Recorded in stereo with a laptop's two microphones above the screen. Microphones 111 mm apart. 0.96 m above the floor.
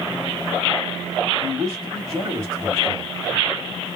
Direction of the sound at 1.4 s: 35° right (ahead or behind).